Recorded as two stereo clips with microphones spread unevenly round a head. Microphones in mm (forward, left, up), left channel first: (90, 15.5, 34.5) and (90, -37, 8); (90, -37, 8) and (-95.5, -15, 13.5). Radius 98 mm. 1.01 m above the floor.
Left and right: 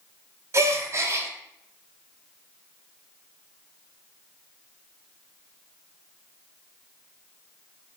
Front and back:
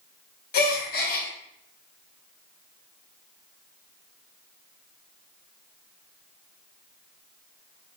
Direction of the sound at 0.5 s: 35° right.